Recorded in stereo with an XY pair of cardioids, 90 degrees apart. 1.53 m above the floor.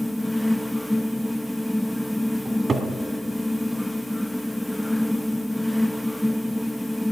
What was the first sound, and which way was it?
A fan, 5° left.